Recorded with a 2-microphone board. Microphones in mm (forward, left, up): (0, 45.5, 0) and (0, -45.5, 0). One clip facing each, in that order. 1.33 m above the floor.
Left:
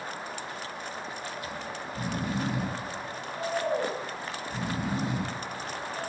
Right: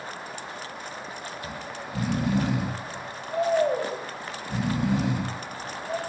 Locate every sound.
1.4 s snoring: 70° right (ahead or behind), 6.5 m